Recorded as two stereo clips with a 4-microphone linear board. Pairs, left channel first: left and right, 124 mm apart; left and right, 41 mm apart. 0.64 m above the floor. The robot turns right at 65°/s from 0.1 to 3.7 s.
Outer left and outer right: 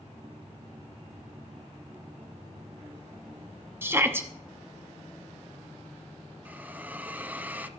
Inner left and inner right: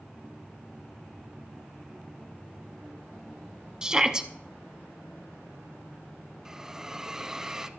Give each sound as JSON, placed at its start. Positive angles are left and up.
{"t": 3.8, "sound": "a shout", "side_deg": -20, "distance_m": 0.8}
{"t": 6.5, "sound": "a hiss", "side_deg": -15, "distance_m": 0.6}